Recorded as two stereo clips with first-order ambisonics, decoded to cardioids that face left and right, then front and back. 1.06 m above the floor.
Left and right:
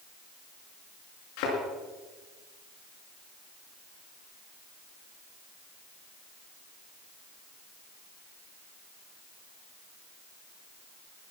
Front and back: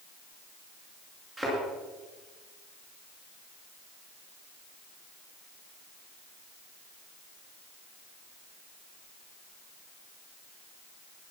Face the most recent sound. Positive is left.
turn(degrees=105)